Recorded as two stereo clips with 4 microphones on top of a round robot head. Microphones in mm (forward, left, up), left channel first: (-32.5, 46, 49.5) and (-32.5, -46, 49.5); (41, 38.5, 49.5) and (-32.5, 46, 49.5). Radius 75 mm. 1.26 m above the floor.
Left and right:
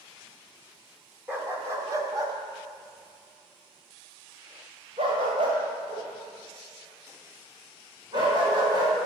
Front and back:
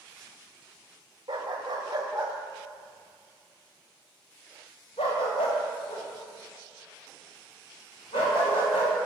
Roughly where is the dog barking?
Behind right.